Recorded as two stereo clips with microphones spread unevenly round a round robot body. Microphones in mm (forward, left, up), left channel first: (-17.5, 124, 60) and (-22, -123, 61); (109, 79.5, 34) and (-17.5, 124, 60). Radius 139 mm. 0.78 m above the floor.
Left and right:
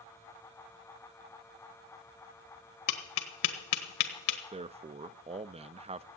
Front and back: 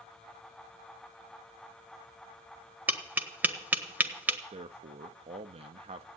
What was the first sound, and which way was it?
Tapping, 85° left.